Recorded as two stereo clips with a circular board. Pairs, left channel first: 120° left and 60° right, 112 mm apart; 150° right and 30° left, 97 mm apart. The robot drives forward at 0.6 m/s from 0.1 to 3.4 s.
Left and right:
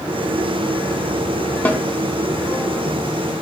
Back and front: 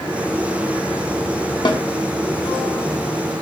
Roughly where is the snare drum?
Behind.